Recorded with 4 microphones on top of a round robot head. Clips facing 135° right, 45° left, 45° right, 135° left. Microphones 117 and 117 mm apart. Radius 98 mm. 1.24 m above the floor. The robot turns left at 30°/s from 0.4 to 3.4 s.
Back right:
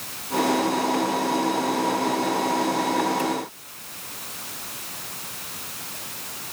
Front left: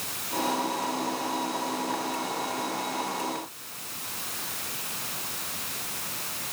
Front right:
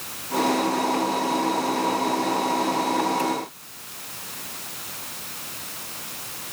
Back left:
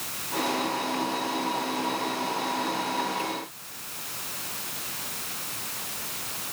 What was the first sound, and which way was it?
Only background noise.